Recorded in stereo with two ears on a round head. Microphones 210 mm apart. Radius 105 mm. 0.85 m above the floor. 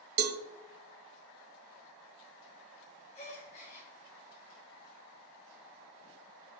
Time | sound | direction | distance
0.2 | a cowbell | 45° right (ahead or behind) | 0.8 m
3.1 | a gasp | 30° left (ahead or behind) | 4 m